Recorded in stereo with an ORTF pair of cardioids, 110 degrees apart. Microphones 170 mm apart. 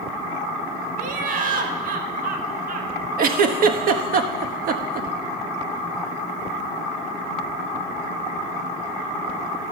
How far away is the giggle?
About 1.3 m.